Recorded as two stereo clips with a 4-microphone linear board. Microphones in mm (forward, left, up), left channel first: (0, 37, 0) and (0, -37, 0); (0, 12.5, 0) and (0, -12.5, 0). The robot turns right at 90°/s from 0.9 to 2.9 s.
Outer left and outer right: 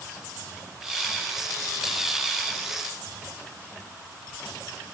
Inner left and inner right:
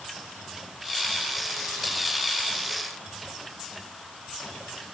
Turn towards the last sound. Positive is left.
No sound to turn to.